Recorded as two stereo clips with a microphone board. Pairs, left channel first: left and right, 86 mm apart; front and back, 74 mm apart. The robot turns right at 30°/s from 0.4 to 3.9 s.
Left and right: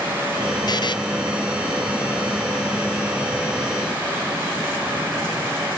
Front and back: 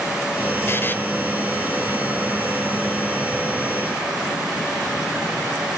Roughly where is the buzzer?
Ahead left.